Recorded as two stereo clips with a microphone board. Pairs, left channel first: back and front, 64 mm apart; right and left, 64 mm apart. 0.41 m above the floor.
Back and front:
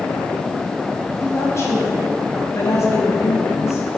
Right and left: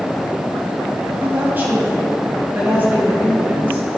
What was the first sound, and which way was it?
A woman speaking, 145° left.